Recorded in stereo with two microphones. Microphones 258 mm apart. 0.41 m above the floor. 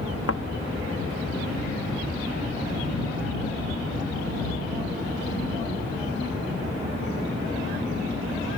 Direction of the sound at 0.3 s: 65° left (ahead or behind).